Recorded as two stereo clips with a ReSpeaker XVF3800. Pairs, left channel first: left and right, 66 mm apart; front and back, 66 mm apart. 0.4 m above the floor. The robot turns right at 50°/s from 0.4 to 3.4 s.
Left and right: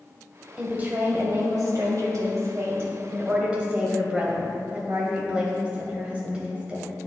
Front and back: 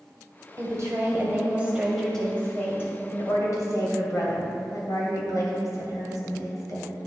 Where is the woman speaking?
160° right, 1.8 m; by 6.9 s 20° right, 1.8 m.